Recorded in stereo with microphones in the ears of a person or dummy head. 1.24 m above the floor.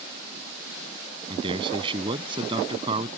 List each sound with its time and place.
1.3 s a man speaking: 30° right (ahead or behind)